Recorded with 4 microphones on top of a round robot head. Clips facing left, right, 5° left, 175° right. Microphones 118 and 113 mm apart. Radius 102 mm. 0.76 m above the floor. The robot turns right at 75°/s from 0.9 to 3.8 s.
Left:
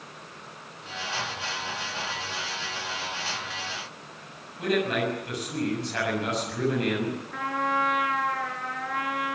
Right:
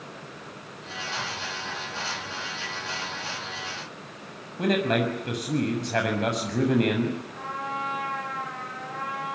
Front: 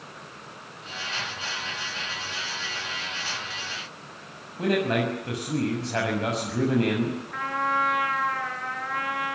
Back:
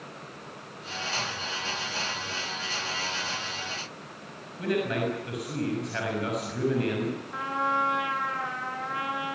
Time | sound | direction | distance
4.6 | a man speaking | 60° right | 6.5 m
7.3 | a trumpet | 120° left | 7.5 m